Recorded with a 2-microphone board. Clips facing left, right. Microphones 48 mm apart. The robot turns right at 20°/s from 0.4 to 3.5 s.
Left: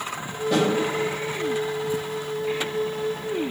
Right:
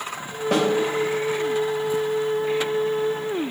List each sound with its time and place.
0.5 s a snare drum: 70° right (ahead or behind), 0.9 m; by 0.7 s 75° right (ahead or behind), 0.9 m